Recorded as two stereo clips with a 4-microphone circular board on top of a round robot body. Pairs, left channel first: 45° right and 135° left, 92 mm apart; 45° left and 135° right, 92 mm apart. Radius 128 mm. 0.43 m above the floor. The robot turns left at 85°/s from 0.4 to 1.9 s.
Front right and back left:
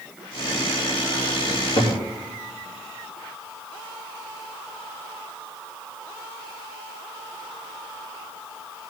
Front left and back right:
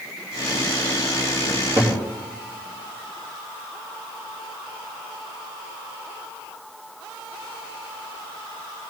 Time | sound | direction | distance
1.5 | a cupboard door | 60° right | 3.5 m